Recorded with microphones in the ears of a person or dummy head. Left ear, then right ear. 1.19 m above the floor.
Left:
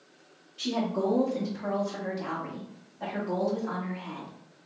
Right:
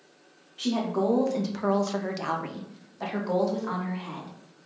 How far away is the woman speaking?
About 0.7 m.